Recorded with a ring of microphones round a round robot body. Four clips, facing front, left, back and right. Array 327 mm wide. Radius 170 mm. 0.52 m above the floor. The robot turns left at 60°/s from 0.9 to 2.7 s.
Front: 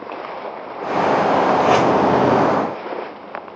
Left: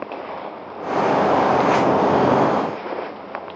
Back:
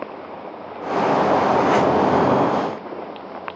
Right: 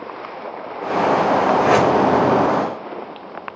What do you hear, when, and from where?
1.6 s a whoosh: 30° right, 1.9 m; by 1.9 s 50° right, 1.9 m